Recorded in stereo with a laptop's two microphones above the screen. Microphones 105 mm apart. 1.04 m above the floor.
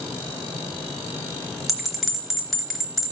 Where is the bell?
Centre (ahead or behind), 1.0 m.